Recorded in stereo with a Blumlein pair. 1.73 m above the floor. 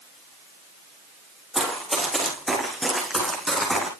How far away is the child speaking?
I don't hear a child speaking.